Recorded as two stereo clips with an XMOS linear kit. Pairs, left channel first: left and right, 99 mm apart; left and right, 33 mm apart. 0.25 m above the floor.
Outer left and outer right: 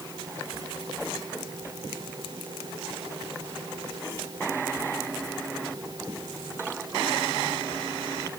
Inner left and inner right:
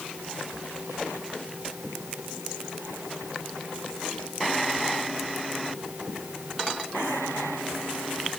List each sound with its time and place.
Only background noise.